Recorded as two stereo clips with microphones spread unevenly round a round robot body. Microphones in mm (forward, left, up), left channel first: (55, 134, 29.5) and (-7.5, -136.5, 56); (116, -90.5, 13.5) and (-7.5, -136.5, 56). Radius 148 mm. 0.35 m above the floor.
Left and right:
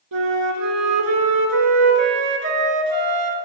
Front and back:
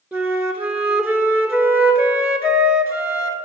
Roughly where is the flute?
Right.